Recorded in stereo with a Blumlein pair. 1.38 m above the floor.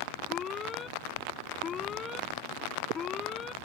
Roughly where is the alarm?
Ahead.